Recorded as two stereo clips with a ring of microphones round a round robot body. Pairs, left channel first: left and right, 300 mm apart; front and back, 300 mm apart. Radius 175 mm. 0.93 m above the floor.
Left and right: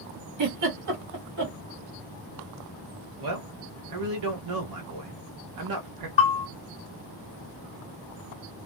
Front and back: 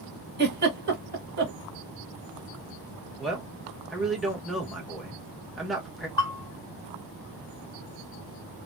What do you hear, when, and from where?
0.4 s a giggle: 125° right, 2 m
3.2 s a man speaking: 90° right, 1.7 m
6.2 s a bell: 30° left, 1.4 m